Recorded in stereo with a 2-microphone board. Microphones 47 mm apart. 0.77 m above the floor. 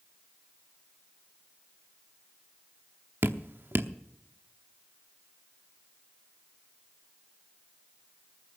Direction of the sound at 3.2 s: 50° right (ahead or behind).